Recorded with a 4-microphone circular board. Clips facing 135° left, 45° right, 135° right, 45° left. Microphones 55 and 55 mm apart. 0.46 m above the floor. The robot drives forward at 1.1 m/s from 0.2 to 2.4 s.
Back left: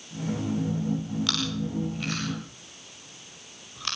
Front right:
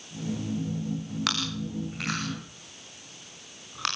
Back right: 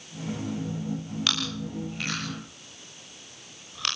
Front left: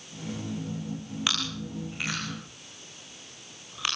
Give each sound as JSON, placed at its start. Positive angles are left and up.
{"t": 1.3, "sound": "chewing", "azimuth_deg": -30, "distance_m": 9.0}